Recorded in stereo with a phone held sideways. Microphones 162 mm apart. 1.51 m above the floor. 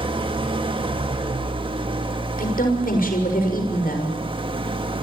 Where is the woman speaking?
70° left (ahead or behind), 6.5 m.